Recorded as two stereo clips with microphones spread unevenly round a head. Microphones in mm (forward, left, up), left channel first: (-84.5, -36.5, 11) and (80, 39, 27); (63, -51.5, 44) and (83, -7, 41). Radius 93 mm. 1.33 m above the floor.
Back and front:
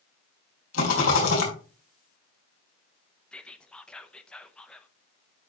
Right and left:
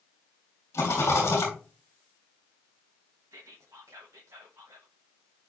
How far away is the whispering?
About 0.8 m.